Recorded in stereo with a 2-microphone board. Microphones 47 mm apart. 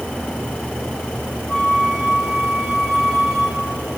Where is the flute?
Centre (ahead or behind), 5.5 m.